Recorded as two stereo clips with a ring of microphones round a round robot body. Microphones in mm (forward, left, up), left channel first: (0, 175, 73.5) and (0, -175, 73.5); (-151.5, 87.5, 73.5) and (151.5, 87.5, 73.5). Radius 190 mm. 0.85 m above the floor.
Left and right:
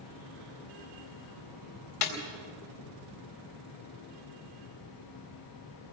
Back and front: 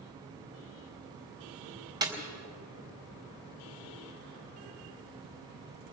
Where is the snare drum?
75° left, 4 m.